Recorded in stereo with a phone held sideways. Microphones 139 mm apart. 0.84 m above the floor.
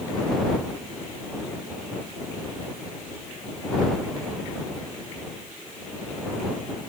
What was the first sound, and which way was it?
Only background noise.